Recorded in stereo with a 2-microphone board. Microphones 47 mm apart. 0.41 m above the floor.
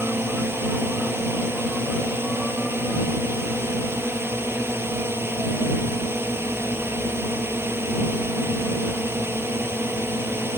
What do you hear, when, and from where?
0.0 s a drone: 60° right (ahead or behind)